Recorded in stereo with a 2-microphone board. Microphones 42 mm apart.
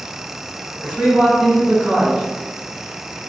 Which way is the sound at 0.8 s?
20° right (ahead or behind).